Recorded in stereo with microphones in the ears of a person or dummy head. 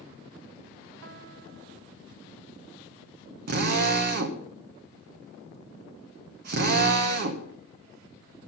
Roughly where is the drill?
Right.